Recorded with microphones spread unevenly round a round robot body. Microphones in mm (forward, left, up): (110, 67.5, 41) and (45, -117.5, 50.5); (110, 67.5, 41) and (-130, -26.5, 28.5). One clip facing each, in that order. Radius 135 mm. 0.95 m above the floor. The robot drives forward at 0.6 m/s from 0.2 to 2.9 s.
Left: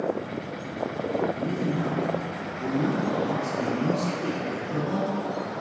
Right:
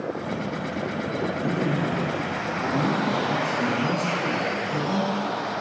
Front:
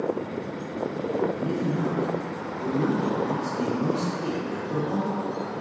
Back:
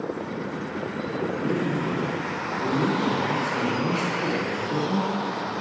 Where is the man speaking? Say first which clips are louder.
Right 2 dB, back 1 dB; 135° left, 1.6 m; by 5.5 s 150° left, 2.5 m.